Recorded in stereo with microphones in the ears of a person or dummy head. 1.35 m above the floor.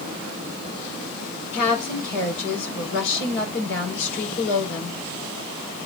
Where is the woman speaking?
65° left (ahead or behind), 4 m.